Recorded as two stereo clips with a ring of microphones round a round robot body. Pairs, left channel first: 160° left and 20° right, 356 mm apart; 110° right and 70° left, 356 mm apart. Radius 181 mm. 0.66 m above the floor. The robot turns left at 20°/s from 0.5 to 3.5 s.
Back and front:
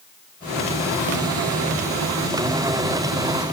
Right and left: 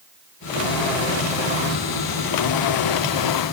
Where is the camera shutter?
I don't hear a camera shutter.